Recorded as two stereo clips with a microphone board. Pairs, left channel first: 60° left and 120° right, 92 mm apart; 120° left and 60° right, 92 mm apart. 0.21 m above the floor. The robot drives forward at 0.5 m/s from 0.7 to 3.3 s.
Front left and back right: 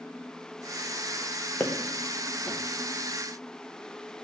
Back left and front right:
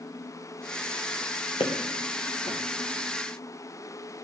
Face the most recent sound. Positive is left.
turn(degrees=140)